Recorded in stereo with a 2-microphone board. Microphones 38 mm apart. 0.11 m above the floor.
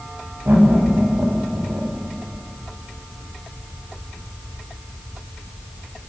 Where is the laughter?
80° right, 10 m.